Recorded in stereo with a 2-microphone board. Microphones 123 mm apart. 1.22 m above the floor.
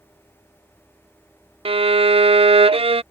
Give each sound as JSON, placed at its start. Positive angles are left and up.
{"t": 1.6, "sound": "a violin", "side_deg": -50}